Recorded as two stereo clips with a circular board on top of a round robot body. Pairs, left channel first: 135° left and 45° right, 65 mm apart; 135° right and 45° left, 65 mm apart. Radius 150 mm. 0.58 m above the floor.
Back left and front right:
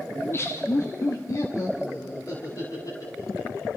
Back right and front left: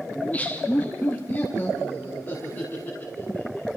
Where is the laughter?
165° left, 1.2 m.